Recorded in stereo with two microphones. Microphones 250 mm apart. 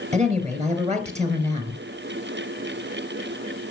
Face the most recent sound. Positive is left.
turn(degrees=-25)  # may be behind; listen again after turning